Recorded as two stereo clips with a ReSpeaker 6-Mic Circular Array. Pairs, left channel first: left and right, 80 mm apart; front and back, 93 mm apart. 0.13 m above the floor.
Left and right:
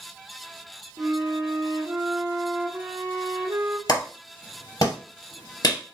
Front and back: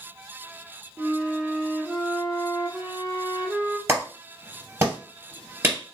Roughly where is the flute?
Right.